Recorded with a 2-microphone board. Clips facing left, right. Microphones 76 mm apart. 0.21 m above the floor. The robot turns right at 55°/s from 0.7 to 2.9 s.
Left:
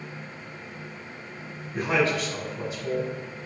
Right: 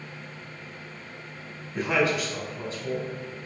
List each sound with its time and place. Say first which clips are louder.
1.7 s a man speaking: even; 100° left, 1.7 m; by 3.1 s 165° left, 1.7 m